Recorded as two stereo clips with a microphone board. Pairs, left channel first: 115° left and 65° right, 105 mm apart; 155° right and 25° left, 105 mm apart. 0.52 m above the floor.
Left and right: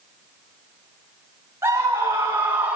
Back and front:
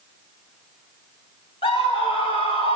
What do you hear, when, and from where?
1.6 s a scream: 130° right, 3.5 m; by 2.8 s 145° right, 1.9 m